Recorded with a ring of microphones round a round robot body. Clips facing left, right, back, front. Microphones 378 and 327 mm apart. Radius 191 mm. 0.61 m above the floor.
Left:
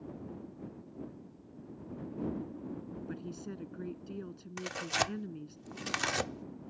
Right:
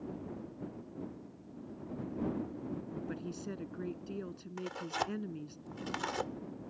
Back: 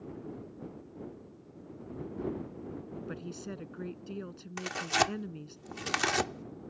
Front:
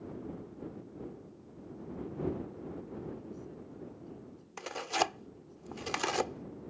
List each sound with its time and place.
3.1 s a woman speaking: 175° left
4.6 s tearing paper: 125° left